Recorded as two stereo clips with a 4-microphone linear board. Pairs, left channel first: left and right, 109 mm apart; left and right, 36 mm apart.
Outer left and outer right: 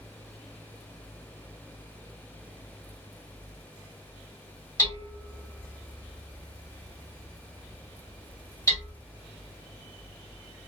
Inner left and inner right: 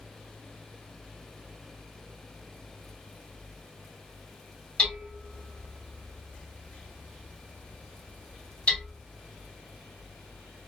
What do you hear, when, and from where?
4.8 s hammering: 30° left (ahead or behind), 1.4 m